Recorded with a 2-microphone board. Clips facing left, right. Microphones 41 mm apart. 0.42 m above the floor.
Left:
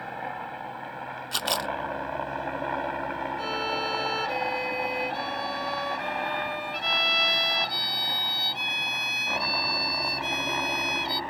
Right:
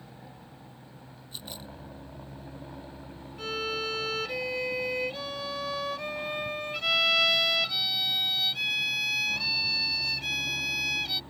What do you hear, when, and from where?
0.0 s a helicopter: 60° left (ahead or behind); by 11.3 s 65° left (ahead or behind)
1.3 s a camera shutter: 75° left (ahead or behind)
3.4 s a violin: 5° left (ahead or behind)